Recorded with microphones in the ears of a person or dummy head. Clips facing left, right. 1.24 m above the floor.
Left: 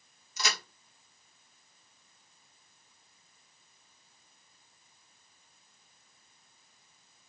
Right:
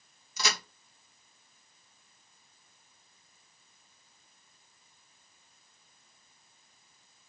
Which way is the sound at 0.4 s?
70° right (ahead or behind).